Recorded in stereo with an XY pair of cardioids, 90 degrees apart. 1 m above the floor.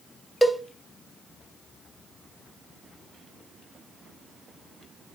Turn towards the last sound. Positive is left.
turn(degrees=10)